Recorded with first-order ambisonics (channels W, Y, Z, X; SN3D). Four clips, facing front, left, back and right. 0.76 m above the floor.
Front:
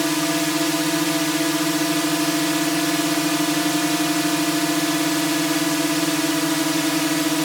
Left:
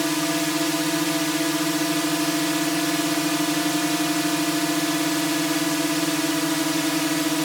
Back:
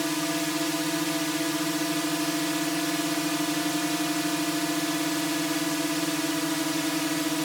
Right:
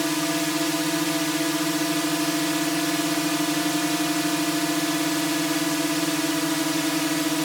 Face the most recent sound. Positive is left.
turn(degrees=10)